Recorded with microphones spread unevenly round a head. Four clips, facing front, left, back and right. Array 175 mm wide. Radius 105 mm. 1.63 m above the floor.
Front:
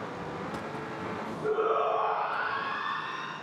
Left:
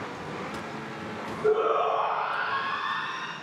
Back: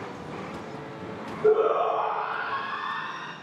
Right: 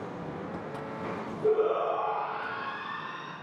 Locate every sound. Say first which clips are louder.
1.4 s a shout: left 2 dB, back 6 dB; 175° right, 3 m; by 3.3 s straight behind, 1.9 m